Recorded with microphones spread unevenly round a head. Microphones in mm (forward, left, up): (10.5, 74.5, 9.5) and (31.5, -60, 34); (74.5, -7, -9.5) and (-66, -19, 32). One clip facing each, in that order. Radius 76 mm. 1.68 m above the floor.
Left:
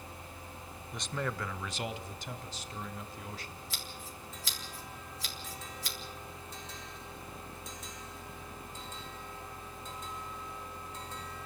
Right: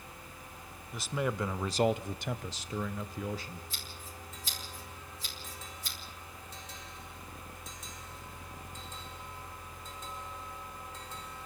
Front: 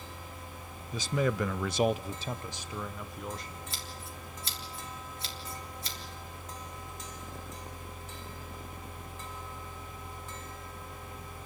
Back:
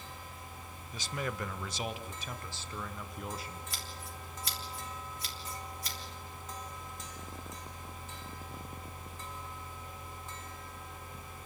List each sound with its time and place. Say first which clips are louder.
0.9 s a man speaking: right 4 dB, front 8 dB; 5° left, 0.8 m; by 3.6 s 95° right, 1.3 m
3.7 s scissors: left 2 dB, front 1 dB; 75° left, 3.5 m